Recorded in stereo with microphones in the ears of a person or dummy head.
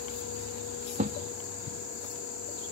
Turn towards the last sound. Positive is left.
turn(degrees=-40)  # may be behind; listen again after turning